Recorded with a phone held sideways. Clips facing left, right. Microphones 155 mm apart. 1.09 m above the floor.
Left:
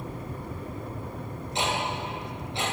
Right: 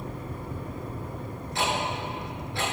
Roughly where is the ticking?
Left.